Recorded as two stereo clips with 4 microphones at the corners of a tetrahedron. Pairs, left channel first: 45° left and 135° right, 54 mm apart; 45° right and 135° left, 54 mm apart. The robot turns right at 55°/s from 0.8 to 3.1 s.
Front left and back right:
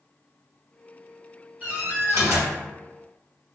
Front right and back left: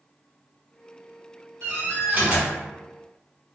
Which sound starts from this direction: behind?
A door slam, at 1.6 s.